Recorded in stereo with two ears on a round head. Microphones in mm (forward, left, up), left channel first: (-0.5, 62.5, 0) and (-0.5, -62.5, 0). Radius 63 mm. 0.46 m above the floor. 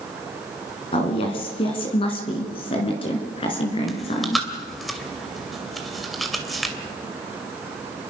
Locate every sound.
0.9 s a woman speaking: 40° left (ahead or behind), 4.5 m
3.9 s chewing: centre (ahead or behind), 2.5 m